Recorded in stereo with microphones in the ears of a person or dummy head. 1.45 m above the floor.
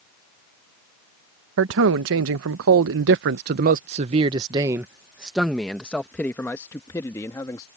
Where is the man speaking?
70° right (ahead or behind); by 7.7 s 20° left (ahead or behind).